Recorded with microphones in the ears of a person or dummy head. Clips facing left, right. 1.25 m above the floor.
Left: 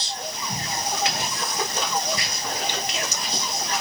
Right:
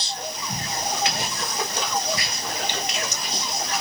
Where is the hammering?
I don't hear hammering.